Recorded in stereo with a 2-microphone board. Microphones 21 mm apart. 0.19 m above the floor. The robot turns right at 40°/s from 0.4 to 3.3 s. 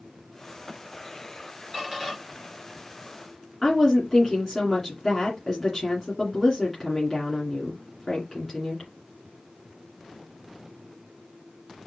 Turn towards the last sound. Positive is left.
turn(degrees=10)  # may be behind; listen again after turning